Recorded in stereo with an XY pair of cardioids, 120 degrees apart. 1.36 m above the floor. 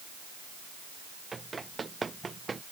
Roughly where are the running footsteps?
Ahead.